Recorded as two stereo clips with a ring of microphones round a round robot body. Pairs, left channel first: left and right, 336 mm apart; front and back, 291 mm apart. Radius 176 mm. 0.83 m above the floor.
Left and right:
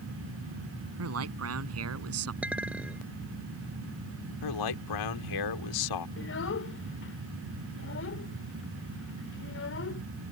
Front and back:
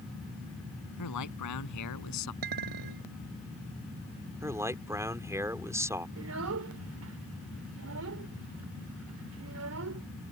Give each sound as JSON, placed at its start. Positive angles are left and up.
{"t": 1.0, "sound": "a man speaking", "azimuth_deg": -40}
{"t": 2.4, "sound": "a clink", "azimuth_deg": -175}
{"t": 4.4, "sound": "a man speaking", "azimuth_deg": 100}
{"t": 6.2, "sound": "a child speaking", "azimuth_deg": 145}